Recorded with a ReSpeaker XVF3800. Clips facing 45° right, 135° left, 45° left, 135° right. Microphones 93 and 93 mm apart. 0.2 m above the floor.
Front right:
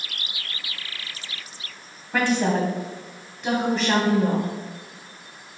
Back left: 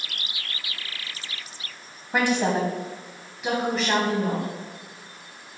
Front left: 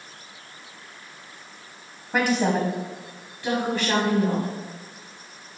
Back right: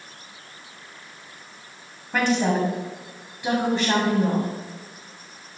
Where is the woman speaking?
105° left, 1.3 m; by 4.5 s 125° right, 1.5 m.